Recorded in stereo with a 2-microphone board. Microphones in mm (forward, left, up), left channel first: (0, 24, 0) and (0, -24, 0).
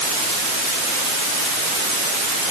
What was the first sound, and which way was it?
Only background noise.